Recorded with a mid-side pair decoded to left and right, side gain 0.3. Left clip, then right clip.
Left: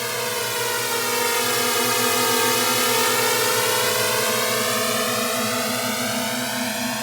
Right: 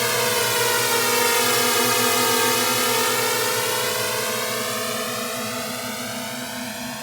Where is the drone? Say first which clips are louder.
Right 4 dB; 45° right; by 7.0 s 60° left.